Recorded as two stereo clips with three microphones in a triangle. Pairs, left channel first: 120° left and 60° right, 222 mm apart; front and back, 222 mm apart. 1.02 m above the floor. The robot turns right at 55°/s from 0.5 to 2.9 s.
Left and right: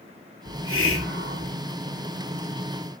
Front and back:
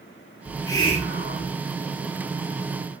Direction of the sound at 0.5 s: 85° right.